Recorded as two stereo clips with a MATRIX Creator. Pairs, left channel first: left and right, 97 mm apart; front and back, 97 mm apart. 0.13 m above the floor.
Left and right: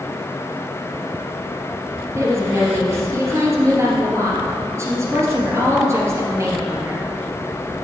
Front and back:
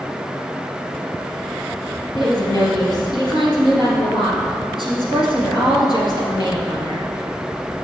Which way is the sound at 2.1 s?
35° right.